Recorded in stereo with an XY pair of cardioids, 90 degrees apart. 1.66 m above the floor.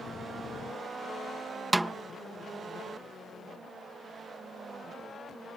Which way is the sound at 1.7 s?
15° right.